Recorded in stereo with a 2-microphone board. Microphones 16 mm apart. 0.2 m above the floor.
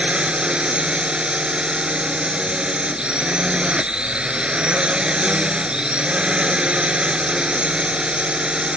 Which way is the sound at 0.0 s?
65° right (ahead or behind).